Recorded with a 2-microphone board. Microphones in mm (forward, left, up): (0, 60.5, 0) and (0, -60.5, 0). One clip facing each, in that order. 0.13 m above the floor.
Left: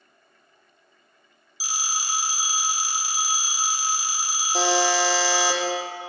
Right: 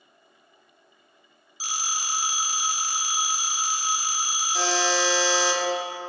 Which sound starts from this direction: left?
A buzzer, at 4.5 s.